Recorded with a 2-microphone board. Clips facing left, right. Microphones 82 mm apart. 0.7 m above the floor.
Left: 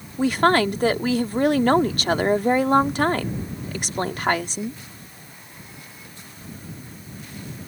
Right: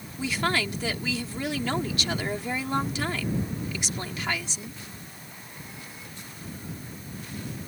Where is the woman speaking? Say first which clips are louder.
Left 10 dB; 50° left (ahead or behind).